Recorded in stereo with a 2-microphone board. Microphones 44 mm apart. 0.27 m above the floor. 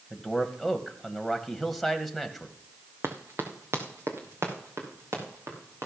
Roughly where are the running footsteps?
Right.